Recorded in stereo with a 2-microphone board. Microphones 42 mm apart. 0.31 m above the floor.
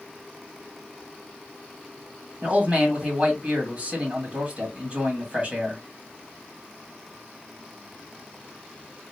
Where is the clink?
No clink in this recording.